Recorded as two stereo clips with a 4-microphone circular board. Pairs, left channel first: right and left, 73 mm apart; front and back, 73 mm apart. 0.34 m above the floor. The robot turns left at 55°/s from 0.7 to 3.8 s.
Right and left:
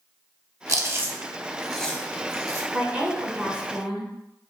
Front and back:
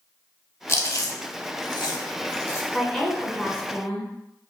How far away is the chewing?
About 0.6 m.